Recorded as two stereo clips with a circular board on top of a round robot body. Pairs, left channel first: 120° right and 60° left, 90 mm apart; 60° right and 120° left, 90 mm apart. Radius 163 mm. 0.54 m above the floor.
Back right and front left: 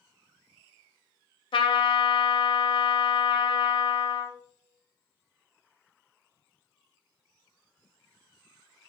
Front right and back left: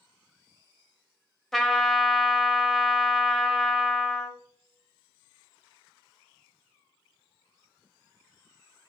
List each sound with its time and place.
1.5 s a trumpet: 145° right, 0.7 m